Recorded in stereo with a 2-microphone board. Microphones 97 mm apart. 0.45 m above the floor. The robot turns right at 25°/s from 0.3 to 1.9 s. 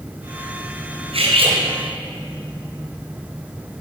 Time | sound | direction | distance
1.1 | cutlery clinking | 80° right | 3 m